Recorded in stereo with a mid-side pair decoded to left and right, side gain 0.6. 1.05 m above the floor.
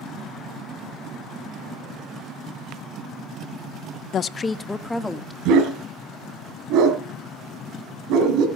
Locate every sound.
4.1 s a woman speaking: 50° left, 0.6 m; by 5.3 s 5° left, 1.6 m
5.5 s a dog barking: 70° right, 4 m